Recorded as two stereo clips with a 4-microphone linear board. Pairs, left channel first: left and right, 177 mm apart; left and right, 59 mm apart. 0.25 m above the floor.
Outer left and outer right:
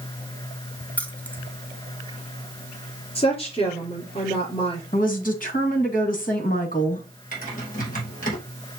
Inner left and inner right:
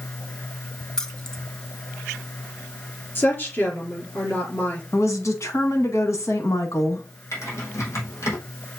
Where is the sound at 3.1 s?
35° left (ahead or behind), 4 m.